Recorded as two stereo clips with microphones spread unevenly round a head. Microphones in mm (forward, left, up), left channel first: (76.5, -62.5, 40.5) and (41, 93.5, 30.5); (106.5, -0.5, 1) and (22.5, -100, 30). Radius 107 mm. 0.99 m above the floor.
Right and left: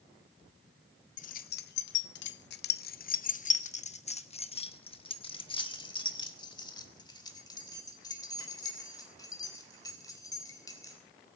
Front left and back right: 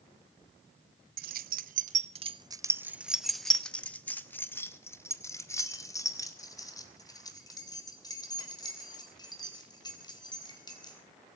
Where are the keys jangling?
130° right, 0.7 m; by 11.0 s 10° right, 4.5 m.